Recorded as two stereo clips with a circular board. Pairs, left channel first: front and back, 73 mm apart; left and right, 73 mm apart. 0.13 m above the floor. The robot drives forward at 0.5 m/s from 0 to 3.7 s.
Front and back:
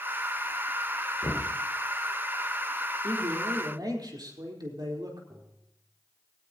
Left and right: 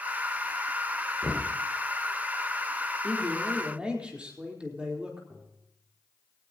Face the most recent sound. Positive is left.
turn(degrees=-160)